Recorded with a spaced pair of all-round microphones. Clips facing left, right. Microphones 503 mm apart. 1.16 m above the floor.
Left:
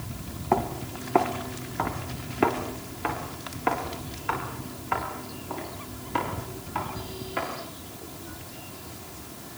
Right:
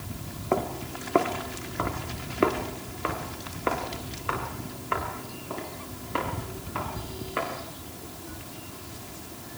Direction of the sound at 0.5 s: 15° left (ahead or behind).